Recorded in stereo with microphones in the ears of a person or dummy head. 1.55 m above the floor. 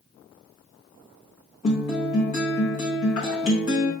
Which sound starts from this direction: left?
A guitar, at 1.6 s.